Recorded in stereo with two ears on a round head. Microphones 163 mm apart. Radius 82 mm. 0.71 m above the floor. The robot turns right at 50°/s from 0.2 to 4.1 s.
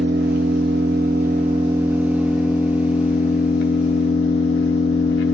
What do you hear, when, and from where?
0.0 s an engine running: 105° right, 1.4 m; by 5.3 s 90° left, 1.4 m